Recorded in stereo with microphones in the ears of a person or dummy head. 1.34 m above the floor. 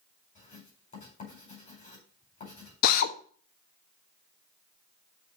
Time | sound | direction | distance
0.3 | writing | 40° left (ahead or behind) | 5 m
2.8 | a drill | 50° left (ahead or behind) | 0.9 m